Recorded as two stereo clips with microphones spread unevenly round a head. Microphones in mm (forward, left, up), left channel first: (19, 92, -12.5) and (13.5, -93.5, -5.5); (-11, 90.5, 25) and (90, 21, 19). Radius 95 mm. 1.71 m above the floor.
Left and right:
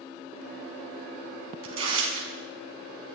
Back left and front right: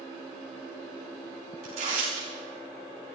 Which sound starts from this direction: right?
Tearing paper, at 1.6 s.